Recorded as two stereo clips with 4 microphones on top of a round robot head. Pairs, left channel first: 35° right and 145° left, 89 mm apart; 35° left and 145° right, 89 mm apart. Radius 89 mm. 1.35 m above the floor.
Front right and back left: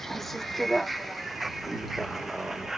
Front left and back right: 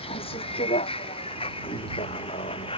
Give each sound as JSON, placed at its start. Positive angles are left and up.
{"t": 0.0, "sound": "a vehicle", "azimuth_deg": 55}